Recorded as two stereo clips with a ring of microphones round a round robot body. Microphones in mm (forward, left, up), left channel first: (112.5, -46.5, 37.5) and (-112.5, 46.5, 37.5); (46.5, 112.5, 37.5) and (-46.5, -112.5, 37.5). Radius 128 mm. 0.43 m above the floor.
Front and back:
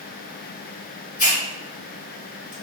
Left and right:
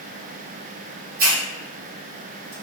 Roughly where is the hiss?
Right.